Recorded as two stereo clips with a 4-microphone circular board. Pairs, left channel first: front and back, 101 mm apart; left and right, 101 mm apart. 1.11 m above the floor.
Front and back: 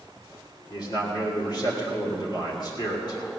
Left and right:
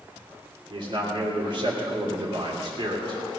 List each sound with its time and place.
0.7 s a man speaking: 50° right, 3 m